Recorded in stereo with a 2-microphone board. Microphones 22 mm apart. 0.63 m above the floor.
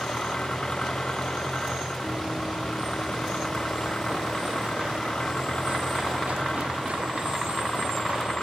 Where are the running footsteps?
75° right (ahead or behind); by 8.3 s 85° right.